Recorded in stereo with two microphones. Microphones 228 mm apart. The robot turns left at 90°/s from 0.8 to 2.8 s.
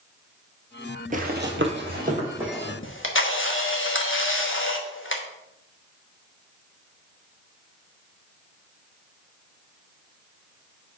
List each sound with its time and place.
1.1 s running footsteps: 35° right (ahead or behind), 0.8 m; by 2.7 s 15° left (ahead or behind), 2.5 m
2.8 s a camera shutter: 55° left (ahead or behind), 1.0 m